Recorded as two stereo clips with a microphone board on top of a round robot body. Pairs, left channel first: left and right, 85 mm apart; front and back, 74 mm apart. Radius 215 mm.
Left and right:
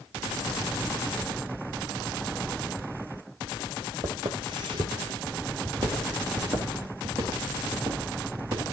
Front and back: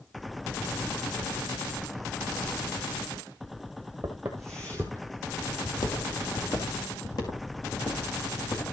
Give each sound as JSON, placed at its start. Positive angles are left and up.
{"t": 4.0, "sound": "footsteps", "azimuth_deg": -120, "distance_m": 1.1}